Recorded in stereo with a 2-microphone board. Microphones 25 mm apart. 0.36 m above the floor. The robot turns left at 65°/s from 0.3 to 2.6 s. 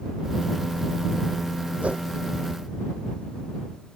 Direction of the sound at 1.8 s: 65° right (ahead or behind).